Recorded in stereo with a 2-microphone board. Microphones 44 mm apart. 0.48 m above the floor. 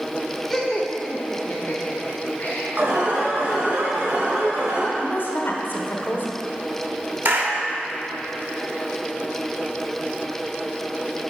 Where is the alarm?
60° right (ahead or behind), 2.5 m.